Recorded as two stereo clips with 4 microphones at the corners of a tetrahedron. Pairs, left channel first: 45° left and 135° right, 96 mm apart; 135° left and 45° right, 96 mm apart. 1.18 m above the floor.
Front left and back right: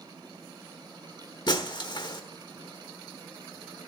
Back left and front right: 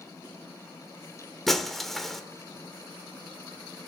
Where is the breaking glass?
50° left, 1.1 m.